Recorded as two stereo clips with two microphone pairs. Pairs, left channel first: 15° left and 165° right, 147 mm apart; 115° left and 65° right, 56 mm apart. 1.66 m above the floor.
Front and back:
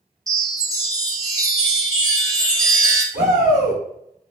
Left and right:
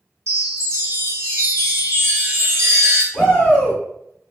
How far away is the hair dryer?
I don't hear a hair dryer.